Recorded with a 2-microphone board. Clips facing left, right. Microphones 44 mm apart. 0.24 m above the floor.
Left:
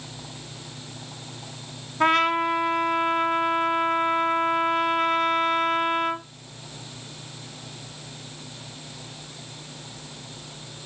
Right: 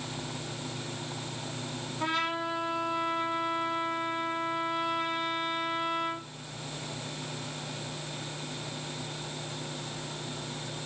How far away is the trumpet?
About 1.0 m.